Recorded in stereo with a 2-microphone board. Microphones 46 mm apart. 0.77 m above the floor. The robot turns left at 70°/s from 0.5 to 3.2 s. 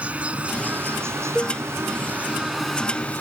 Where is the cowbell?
Centre (ahead or behind); by 1.6 s 15° left (ahead or behind).